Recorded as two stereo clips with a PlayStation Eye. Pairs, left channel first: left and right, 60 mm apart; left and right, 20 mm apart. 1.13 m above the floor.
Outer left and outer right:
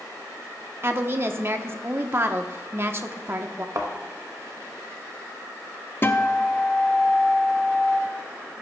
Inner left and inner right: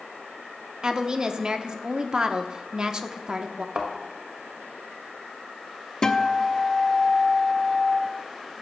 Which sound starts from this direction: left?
A guitar, at 6.0 s.